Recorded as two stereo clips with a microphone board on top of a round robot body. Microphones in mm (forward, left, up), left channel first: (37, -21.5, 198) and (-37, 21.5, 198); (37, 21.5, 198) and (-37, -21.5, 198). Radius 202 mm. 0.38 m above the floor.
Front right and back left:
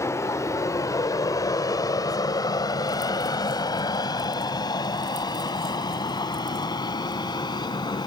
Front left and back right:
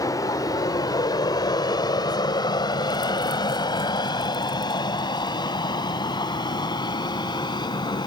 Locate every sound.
0.0 s an aircraft: 10° left; by 8.1 s straight ahead